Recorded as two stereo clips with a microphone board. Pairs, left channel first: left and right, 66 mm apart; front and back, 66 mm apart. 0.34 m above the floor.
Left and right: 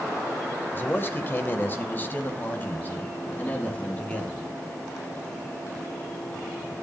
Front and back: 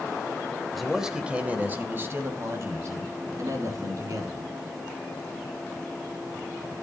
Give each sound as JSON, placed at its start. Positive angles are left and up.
{"t": 0.8, "sound": "a man speaking", "azimuth_deg": 90, "distance_m": 1.0}